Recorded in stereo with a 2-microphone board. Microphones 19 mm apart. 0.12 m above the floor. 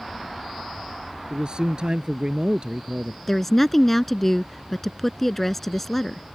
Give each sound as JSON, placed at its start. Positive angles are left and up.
{"t": 1.3, "sound": "a man speaking", "side_deg": -50}
{"t": 3.3, "sound": "a woman speaking", "side_deg": 10}